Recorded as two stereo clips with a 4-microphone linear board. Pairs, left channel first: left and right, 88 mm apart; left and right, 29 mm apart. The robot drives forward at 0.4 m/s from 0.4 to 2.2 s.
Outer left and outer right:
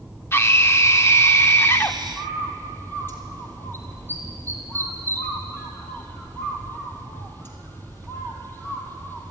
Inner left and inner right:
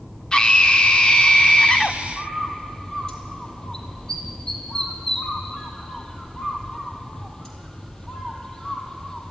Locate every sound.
0.3 s a scream: 30° left (ahead or behind), 0.8 m; by 2.0 s 25° left (ahead or behind), 0.9 m
2.2 s a bird: 25° left (ahead or behind), 2.5 m